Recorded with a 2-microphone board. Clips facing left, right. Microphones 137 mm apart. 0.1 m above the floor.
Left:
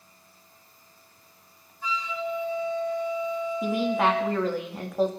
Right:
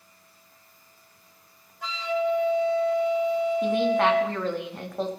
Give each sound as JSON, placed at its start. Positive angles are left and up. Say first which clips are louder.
{"t": 1.8, "sound": "a flute", "louder": "right 5 dB", "side_deg": -75, "distance_m": 4.5}
{"t": 3.6, "sound": "a woman speaking", "louder": "even", "side_deg": 5, "distance_m": 5.5}